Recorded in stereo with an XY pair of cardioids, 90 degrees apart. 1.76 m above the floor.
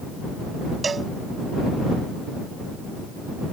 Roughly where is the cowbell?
Ahead right.